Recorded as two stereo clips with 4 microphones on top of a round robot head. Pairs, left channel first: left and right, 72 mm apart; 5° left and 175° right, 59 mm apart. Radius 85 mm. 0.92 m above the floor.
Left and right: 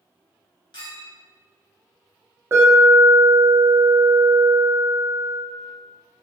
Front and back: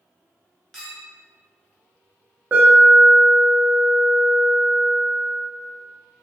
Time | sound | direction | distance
0.7 | a clink | 85° left | 0.9 m
2.5 | an alarm | 125° right | 1.0 m